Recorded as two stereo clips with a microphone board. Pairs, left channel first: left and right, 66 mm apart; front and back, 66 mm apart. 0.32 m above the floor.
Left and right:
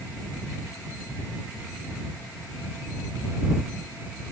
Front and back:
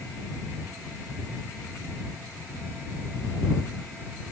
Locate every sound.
Only background noise.